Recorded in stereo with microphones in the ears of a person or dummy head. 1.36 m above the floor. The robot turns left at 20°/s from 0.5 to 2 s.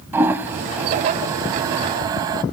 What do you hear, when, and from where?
0.1 s a toilet flushing: 15° right (ahead or behind), 1.3 m; by 2.4 s 25° right (ahead or behind), 1.3 m